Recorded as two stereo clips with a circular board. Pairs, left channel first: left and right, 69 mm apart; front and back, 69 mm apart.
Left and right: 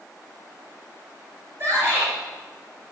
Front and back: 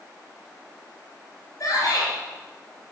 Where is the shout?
35° right, 5.5 m.